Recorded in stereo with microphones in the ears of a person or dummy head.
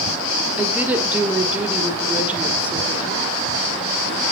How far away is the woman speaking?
About 1.3 m.